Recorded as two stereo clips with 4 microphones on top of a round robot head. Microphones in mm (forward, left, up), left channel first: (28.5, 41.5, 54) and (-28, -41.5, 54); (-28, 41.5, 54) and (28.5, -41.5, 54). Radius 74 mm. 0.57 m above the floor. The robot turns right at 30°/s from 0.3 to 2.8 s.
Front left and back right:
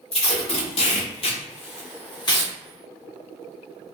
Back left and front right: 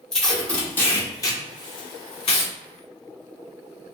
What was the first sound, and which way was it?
Tape being pulled, 40° left.